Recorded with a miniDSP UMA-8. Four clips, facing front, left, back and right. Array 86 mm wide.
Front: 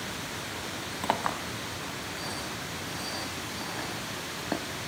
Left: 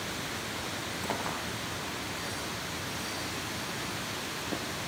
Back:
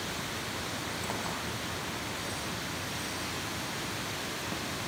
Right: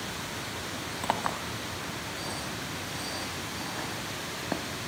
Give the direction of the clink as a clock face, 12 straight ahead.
1 o'clock.